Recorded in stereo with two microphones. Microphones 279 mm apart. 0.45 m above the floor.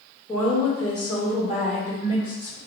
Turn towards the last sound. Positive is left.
turn(degrees=30)  # may be behind; listen again after turning